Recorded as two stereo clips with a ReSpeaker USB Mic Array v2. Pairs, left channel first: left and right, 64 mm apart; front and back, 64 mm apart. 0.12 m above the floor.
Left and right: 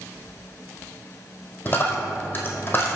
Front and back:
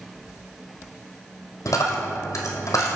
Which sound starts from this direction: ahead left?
A dropped coin, at 1.6 s.